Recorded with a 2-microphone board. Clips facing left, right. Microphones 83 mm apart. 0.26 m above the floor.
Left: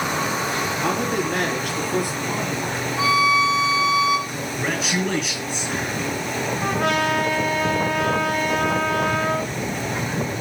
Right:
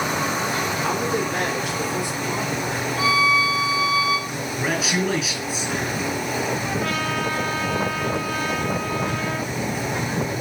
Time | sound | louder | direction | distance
0.8 | a man speaking | left 1 dB | 55° left (ahead or behind) | 6 m
3.0 | a violin | left 2 dB | 30° left (ahead or behind) | 5 m
4.3 | a man speaking | right 1 dB | centre (ahead or behind) | 5.5 m
6.6 | a trumpet | left 4 dB | 70° left (ahead or behind) | 2.5 m